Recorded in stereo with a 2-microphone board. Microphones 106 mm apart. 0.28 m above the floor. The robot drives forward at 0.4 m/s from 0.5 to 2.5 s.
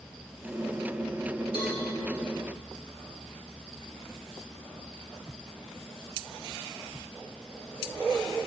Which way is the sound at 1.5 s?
45° left (ahead or behind).